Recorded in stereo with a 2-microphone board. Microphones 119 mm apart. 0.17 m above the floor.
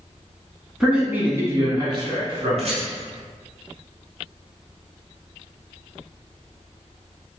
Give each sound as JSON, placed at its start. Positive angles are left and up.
{"t": 0.8, "sound": "a man speaking", "side_deg": -5, "distance_m": 1.2}
{"t": 2.6, "sound": "a rattle", "side_deg": -60, "distance_m": 1.3}